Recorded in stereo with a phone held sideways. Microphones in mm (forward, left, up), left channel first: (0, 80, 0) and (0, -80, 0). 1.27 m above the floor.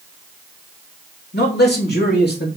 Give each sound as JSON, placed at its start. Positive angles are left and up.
{"t": 1.3, "sound": "a man speaking", "side_deg": 80, "distance_m": 3.0}